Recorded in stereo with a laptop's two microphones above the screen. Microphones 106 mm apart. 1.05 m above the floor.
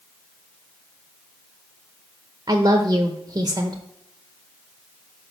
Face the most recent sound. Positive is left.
turn(degrees=-45)  # may be behind; listen again after turning